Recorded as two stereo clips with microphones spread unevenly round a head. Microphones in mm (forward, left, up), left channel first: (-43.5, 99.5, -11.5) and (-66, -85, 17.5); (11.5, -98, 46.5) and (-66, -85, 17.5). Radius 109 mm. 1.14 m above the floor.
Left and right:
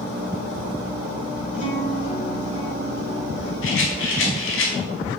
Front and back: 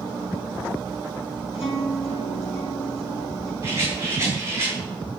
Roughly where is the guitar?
Ahead.